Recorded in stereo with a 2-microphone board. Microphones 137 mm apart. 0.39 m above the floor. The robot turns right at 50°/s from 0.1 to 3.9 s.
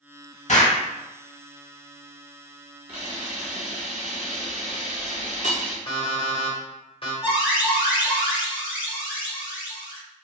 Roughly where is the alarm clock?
Left.